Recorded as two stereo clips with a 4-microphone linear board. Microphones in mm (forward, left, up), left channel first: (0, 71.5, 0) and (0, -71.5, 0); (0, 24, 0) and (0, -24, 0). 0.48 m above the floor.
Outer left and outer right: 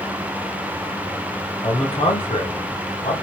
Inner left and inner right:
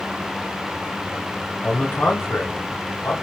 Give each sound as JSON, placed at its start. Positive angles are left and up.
{"t": 1.6, "sound": "a man speaking", "side_deg": 40, "distance_m": 1.5}